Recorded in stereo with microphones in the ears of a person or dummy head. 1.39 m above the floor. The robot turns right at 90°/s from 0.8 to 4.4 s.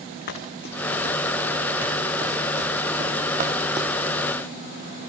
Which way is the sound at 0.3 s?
50° left (ahead or behind).